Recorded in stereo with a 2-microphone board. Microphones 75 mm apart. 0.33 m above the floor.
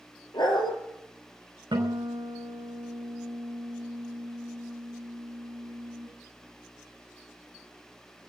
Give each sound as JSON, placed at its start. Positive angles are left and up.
{"t": 0.3, "sound": "a dog barking", "side_deg": 80, "distance_m": 2.5}
{"t": 1.7, "sound": "a guitar", "side_deg": -85, "distance_m": 5.0}